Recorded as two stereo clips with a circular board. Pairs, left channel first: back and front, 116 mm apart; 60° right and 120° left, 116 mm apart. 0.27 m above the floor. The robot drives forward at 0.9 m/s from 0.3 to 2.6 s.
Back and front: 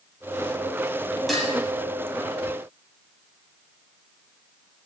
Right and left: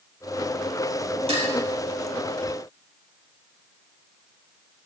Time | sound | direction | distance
1.3 | dishes clattering | 90° left | 4 m